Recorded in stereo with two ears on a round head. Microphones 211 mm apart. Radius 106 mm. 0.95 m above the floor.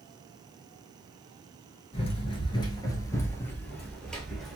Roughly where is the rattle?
No rattle in this recording.